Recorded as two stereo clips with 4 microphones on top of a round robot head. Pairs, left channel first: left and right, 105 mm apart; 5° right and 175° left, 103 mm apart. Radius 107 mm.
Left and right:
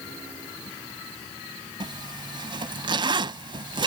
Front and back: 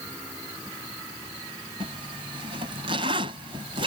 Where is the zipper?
135° right.